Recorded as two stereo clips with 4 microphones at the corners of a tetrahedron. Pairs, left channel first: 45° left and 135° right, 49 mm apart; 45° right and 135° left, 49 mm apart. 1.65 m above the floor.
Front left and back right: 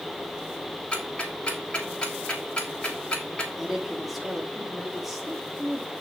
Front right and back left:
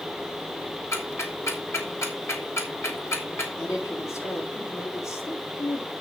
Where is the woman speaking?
50° right, 3.5 m.